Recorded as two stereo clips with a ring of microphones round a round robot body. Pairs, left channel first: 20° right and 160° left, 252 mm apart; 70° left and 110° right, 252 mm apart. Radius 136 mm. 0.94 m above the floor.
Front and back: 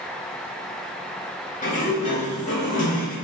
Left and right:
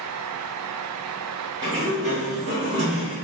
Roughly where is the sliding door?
Ahead right.